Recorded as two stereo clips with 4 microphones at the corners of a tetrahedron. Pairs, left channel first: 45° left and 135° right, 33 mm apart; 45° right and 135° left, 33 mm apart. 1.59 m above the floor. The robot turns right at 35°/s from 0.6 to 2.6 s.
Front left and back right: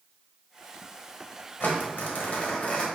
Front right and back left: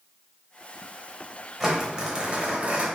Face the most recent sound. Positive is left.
turn(degrees=85)